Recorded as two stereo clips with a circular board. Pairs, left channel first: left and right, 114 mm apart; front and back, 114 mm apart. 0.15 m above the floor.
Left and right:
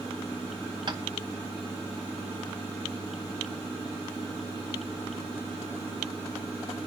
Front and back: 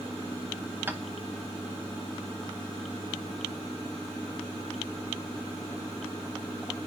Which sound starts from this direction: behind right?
Tapping, at 0.9 s.